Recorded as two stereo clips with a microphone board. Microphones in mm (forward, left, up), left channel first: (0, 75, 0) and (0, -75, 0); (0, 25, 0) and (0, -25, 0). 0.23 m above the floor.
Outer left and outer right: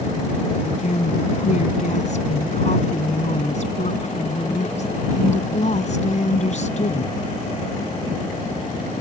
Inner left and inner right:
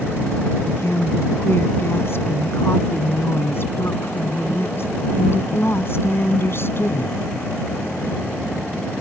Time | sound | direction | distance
0.6 | a woman speaking | 55° left (ahead or behind) | ?